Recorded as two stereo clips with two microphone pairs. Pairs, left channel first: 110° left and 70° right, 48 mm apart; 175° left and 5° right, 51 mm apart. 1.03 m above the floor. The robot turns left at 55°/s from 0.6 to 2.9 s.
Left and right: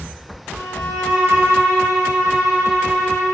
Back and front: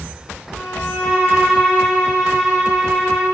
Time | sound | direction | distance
0.5 | a violin | 155° right | 1.0 m